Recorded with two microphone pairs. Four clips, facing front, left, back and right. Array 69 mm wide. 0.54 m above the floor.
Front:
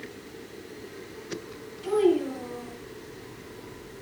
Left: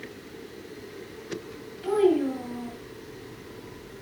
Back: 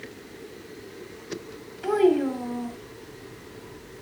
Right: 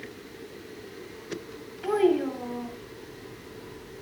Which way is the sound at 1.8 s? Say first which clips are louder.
Left 1 dB, back 2 dB; 155° right.